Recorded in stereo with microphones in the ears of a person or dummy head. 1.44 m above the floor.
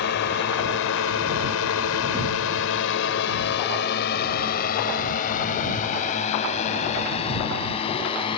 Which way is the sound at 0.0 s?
70° left (ahead or behind).